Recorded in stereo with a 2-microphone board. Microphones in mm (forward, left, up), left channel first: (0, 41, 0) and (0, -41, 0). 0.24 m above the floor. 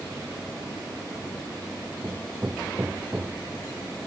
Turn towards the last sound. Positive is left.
turn(degrees=-30)  # may be behind; listen again after turning